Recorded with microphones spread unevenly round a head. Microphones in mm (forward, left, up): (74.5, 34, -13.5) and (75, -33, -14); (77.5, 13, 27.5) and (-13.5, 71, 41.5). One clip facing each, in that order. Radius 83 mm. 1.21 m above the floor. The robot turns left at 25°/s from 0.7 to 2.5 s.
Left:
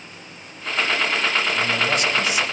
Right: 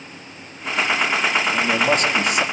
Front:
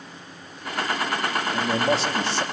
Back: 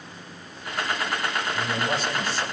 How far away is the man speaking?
About 3 m.